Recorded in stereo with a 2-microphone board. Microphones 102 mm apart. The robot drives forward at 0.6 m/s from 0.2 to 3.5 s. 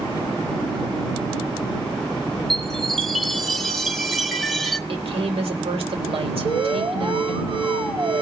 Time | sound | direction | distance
2.5 | a chime | centre (ahead or behind) | 0.9 m
4.9 | a woman speaking | 75° right (ahead or behind) | 3.5 m
6.5 | an alarm | 65° right (ahead or behind) | 3.5 m